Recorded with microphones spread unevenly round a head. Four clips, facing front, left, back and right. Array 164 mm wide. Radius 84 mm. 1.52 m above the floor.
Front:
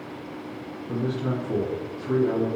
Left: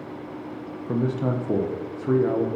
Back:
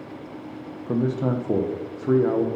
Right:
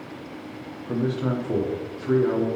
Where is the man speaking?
165° left, 1.6 m.